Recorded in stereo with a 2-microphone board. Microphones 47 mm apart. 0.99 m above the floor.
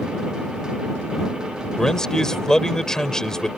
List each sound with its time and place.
1.8 s a man speaking: 10° left (ahead or behind)